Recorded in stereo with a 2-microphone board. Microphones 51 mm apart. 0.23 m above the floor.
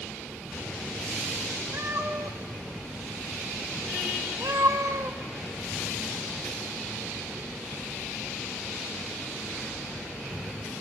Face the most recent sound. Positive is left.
turn(degrees=-75)  # may be behind; listen again after turning